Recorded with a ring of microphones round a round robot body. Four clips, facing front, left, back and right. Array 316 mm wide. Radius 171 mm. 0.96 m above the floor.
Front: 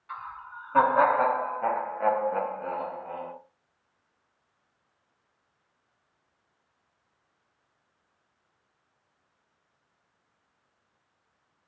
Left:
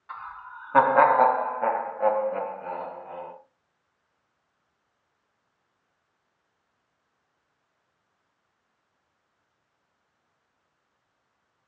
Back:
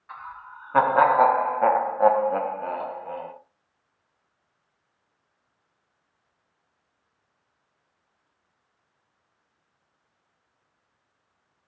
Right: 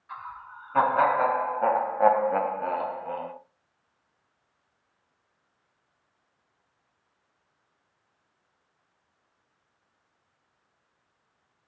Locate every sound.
0.1 s laughter: 105° left, 1.1 m; by 3.3 s 115° right, 1.4 m